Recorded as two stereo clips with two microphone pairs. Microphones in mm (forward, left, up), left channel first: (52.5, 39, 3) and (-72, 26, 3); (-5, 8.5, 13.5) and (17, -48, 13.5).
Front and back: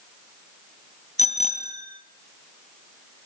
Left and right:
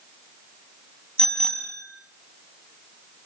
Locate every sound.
1.2 s a bicycle bell: 35° left, 3 m